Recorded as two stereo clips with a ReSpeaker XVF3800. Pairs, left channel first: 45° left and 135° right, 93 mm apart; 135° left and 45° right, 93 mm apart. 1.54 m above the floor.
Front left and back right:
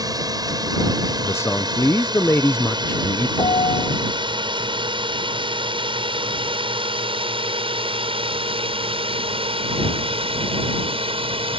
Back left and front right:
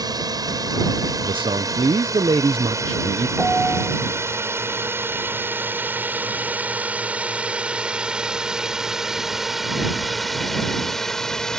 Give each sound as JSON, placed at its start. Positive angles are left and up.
{"t": 0.0, "sound": "a drone", "azimuth_deg": -90}
{"t": 1.2, "sound": "a man speaking", "azimuth_deg": -20}
{"t": 3.4, "sound": "a piano", "azimuth_deg": 35}